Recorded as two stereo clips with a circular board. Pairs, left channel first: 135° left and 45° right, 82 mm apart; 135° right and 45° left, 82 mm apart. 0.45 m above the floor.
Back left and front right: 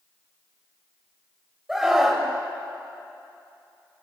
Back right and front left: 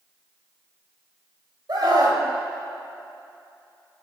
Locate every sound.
1.7 s a scream: 40° left, 2.5 m